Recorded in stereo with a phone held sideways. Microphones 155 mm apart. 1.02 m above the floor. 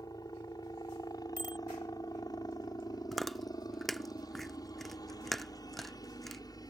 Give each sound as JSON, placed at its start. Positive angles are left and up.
{"t": 0.0, "sound": "a helicopter", "side_deg": 25}
{"t": 1.4, "sound": "a bicycle bell", "side_deg": -65}
{"t": 3.1, "sound": "chewing", "side_deg": 0}